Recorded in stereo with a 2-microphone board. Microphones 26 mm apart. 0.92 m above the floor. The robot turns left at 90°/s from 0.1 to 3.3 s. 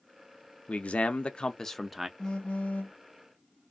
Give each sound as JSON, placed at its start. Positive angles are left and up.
{"t": 0.7, "sound": "a man speaking", "azimuth_deg": 105, "distance_m": 0.5}
{"t": 2.2, "sound": "a phone buzzing", "azimuth_deg": 150, "distance_m": 1.1}